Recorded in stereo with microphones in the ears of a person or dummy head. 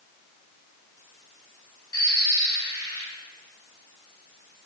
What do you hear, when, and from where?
1.9 s a bird: 25° left (ahead or behind), 2.5 m